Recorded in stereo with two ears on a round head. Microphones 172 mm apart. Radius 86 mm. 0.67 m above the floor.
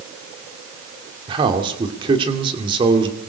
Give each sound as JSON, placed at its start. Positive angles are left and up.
{"t": 1.3, "sound": "a man speaking", "side_deg": -25, "distance_m": 2.0}